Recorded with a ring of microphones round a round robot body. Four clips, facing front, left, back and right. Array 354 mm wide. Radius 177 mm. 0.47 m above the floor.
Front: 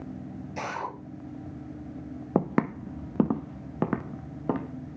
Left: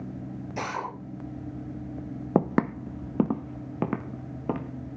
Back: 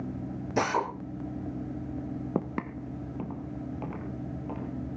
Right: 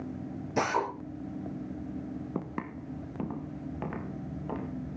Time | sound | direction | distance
0.6 | a drill | 160° right | 8.5 m
2.4 | footsteps | 70° left | 0.6 m